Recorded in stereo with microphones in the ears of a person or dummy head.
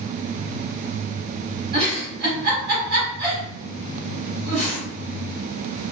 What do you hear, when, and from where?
1.7 s a giggle: 55° right (ahead or behind), 1.7 m